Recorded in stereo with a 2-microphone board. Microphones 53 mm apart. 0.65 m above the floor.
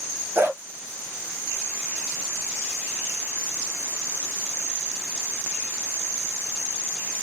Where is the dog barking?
45° right (ahead or behind), 1.4 m.